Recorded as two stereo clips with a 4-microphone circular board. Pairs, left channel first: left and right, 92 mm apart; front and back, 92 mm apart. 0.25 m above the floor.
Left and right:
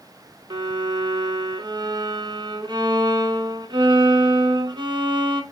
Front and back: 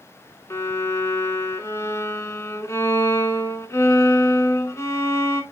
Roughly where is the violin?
Ahead right.